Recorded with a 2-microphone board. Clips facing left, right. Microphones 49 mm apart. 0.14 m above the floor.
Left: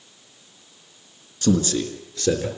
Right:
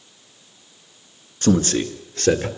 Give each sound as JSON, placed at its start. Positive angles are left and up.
{"t": 1.4, "sound": "a man speaking", "side_deg": -40, "distance_m": 1.6}